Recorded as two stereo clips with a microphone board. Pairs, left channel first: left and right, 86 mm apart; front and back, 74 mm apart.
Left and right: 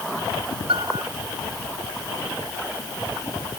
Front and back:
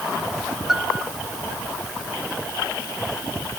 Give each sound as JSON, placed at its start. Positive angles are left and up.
{"t": 0.7, "sound": "a piano", "azimuth_deg": -90}